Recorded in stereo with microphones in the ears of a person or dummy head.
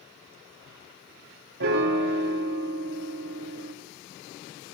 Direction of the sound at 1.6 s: 55° right (ahead or behind).